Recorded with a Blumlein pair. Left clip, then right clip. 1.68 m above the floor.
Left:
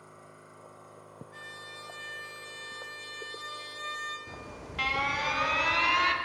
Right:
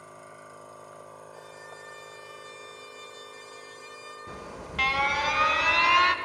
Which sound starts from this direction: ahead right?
A machine running, at 0.0 s.